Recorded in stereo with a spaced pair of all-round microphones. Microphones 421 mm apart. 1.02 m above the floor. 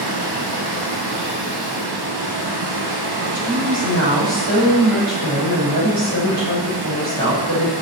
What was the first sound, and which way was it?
Running water, 65° right (ahead or behind).